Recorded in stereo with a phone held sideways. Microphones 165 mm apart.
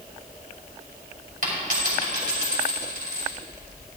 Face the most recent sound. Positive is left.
turn(degrees=-60)  # may be behind; listen again after turning